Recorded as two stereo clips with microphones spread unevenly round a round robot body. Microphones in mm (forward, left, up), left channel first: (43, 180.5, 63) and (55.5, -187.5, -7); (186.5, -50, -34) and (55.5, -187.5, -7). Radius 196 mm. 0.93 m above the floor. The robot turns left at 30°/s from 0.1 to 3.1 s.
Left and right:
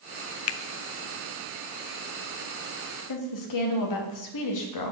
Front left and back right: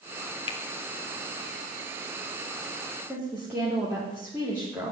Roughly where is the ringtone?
No ringtone in this recording.